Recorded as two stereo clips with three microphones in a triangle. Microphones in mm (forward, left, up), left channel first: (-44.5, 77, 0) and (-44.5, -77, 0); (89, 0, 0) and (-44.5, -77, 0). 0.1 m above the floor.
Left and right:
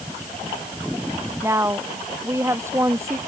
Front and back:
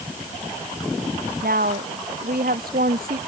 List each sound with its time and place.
1.4 s a woman speaking: 160° right